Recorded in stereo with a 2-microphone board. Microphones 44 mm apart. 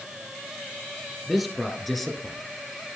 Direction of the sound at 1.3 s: Centre (ahead or behind).